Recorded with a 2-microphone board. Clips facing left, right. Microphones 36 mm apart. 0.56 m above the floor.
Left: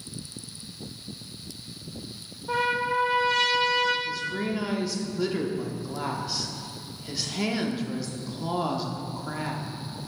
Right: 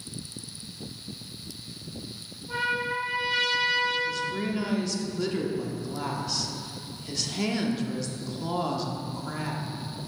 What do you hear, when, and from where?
2.5 s a trumpet: 75° left (ahead or behind), 3 m
4.0 s a woman speaking: 5° left (ahead or behind), 0.9 m